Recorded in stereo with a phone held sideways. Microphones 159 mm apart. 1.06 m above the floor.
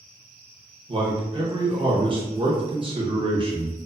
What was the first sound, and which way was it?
A man speaking, 35° right (ahead or behind).